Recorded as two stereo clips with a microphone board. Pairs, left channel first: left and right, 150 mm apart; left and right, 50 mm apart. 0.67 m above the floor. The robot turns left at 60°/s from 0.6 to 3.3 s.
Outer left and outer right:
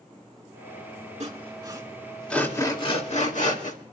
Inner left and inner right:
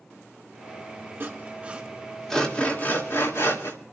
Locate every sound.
1.2 s sawing: 50° right (ahead or behind), 1.9 m; by 3.8 s 55° left (ahead or behind), 1.9 m